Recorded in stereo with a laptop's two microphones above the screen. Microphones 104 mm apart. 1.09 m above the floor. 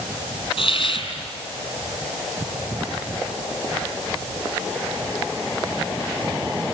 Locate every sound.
0.6 s a hiss: 55° left (ahead or behind), 7 m